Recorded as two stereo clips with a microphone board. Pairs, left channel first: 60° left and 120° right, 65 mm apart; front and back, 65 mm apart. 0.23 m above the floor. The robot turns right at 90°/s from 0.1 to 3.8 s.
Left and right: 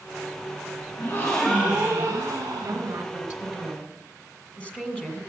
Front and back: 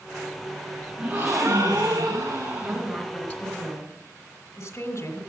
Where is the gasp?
110° left, 6.5 m; by 3.0 s 70° right, 6.5 m.